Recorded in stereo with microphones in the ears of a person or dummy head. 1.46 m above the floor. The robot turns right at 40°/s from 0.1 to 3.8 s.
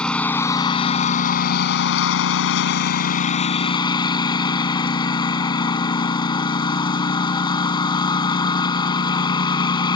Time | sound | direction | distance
0.0 | a lawn mower | straight ahead | ?